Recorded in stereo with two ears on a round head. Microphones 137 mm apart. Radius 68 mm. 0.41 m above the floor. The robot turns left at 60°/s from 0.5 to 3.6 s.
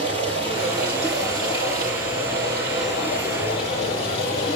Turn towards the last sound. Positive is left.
turn(degrees=140)